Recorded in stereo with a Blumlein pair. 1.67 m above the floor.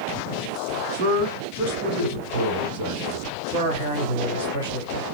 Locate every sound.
0.9 s a man speaking: 55° right, 1.9 m
3.5 s a man speaking: 60° right, 1.8 m